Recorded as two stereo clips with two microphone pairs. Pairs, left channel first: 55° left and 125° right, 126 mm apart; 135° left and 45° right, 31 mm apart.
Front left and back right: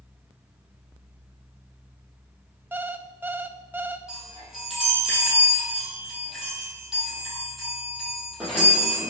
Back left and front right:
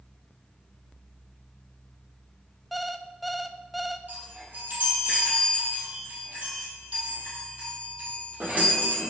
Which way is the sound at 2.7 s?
120° right.